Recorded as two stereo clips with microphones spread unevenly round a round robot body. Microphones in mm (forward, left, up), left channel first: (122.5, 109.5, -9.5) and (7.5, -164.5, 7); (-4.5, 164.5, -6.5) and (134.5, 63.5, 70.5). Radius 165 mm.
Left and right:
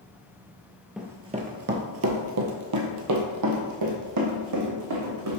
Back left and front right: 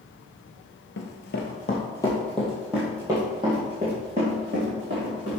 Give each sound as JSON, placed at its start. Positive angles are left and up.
{"t": 1.0, "sound": "running footsteps", "azimuth_deg": 165, "distance_m": 0.7}